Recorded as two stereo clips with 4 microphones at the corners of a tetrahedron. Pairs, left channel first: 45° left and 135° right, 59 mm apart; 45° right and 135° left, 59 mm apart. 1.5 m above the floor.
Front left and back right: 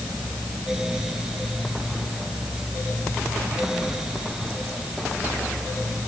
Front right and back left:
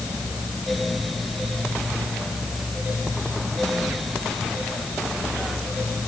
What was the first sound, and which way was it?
Only background noise.